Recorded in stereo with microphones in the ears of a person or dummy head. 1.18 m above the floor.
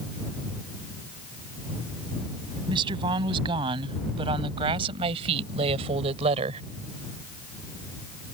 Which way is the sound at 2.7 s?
25° right (ahead or behind).